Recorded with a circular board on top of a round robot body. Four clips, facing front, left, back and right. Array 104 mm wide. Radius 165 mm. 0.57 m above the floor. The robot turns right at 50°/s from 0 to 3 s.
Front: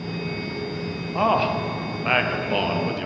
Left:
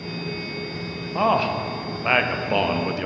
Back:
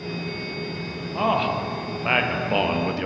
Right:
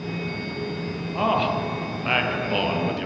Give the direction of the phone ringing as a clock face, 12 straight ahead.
I don't hear a phone ringing.